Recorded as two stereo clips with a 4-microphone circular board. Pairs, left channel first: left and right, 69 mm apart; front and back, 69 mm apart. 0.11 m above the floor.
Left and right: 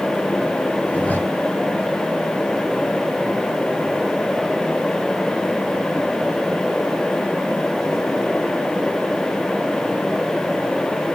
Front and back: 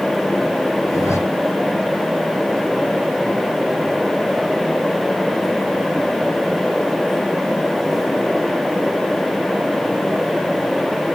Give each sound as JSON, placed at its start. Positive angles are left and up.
{"t": 0.9, "sound": "a zipper", "azimuth_deg": 30, "distance_m": 1.8}